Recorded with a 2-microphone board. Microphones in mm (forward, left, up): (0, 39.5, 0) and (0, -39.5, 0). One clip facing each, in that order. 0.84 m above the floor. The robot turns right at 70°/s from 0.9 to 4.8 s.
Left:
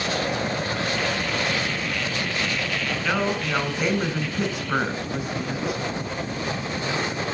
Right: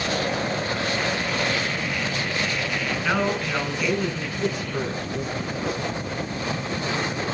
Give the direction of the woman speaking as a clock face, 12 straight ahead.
12 o'clock.